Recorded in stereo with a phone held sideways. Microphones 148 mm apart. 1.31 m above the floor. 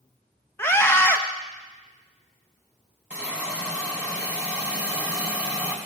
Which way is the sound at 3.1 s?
10° right (ahead or behind).